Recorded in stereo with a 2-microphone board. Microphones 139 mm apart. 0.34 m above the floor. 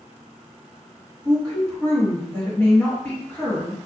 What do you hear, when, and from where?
1.2 s a woman speaking: 15° left (ahead or behind), 1.7 m